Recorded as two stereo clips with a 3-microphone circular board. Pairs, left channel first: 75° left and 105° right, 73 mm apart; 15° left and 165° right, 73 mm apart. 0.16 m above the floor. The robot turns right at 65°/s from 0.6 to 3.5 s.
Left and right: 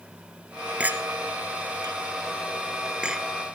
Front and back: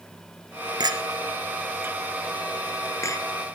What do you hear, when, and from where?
0.8 s a clink: 175° right, 1.9 m; by 3.2 s 20° right, 1.9 m